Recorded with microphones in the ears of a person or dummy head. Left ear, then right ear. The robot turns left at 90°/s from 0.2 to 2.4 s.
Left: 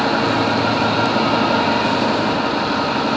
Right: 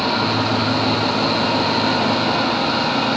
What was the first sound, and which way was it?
An engine running, 160° left.